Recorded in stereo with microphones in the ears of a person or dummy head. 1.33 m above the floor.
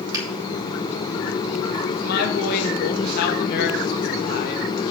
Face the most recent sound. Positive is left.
turn(degrees=50)  # may be behind; listen again after turning